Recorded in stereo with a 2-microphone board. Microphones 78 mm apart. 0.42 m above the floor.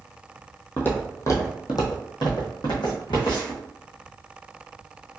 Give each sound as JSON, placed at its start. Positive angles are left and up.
{"t": 0.8, "sound": "footsteps", "side_deg": 20, "distance_m": 0.9}